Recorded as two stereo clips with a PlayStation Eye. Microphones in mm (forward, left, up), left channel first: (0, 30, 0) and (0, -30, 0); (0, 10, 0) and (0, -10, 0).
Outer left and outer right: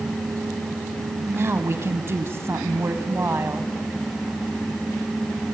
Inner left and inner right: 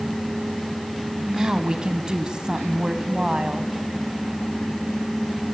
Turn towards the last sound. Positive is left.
turn(degrees=-40)  # may be behind; listen again after turning